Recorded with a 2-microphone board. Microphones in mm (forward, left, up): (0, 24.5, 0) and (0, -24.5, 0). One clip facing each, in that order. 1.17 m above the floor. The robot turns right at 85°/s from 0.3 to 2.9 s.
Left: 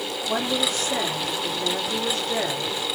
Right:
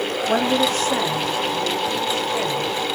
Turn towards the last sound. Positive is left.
turn(degrees=145)